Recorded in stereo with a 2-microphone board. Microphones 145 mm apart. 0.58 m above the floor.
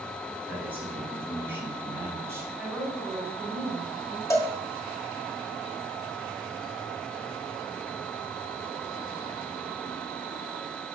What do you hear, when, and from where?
0.5 s a man speaking: 10° right (ahead or behind), 4.5 m; by 2.5 s 15° right (ahead or behind), 3 m
2.6 s a woman speaking: 10° right (ahead or behind), 5 m
4.3 s a cowbell: 20° left (ahead or behind), 1.6 m